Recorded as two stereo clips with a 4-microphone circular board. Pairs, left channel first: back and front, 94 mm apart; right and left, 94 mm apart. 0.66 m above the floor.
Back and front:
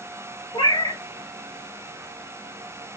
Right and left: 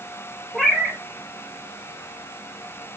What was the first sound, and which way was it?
A cat meowing, 175° right.